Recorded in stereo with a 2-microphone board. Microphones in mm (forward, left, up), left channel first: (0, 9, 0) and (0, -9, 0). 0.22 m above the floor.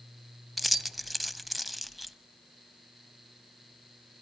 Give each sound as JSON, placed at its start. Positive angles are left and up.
{"t": 0.6, "sound": "keys jangling", "side_deg": -5, "distance_m": 0.7}